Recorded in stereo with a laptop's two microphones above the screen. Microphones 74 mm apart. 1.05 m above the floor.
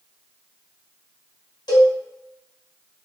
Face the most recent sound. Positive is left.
turn(degrees=70)  # may be behind; listen again after turning